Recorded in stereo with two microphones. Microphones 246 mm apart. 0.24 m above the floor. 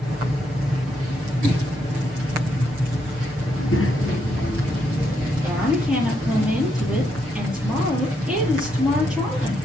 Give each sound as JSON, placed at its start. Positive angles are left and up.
{"t": 3.5, "sound": "a child speaking", "side_deg": 65, "distance_m": 2.5}
{"t": 5.4, "sound": "a woman speaking", "side_deg": -5, "distance_m": 6.0}